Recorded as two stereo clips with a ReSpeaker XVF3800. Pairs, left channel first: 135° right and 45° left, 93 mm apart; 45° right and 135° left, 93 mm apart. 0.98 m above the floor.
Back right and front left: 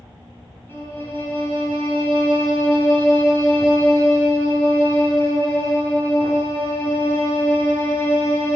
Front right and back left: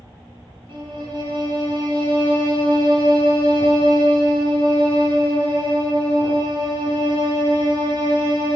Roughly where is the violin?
Behind.